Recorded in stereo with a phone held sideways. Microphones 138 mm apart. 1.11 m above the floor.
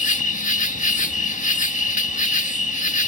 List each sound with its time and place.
0.0 s an insect: 60° left (ahead or behind)